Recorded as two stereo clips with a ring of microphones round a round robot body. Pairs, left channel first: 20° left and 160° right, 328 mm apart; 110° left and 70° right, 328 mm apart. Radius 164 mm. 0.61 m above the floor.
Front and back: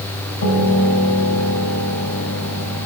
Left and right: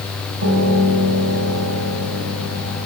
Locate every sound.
0.4 s a piano: 20° right, 3.5 m